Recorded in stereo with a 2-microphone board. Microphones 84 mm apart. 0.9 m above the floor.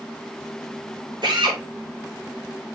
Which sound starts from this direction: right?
A drill, at 1.2 s.